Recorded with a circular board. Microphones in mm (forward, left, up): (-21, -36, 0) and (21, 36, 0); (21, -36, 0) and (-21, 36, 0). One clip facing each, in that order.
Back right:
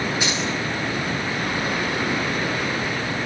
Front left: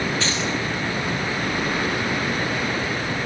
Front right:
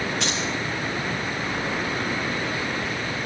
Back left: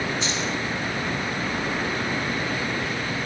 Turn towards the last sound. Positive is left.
turn(degrees=-45)